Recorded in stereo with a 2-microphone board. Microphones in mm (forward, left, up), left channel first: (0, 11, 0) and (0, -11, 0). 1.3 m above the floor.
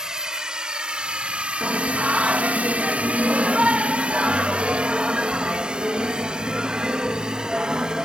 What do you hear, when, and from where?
0.0 s a drone: 30° right (ahead or behind)
1.6 s singing: 55° right (ahead or behind)